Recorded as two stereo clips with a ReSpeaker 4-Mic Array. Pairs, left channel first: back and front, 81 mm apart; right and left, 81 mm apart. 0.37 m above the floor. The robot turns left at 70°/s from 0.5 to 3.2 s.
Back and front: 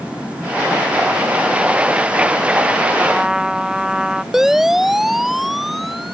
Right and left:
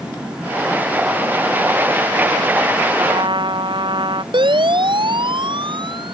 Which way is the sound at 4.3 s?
85° left.